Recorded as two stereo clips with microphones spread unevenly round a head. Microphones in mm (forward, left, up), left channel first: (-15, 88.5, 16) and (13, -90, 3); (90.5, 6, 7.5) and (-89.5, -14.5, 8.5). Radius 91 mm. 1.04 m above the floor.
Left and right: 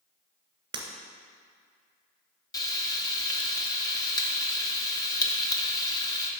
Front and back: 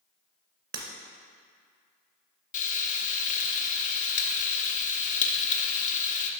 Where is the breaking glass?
145° right, 1.6 m.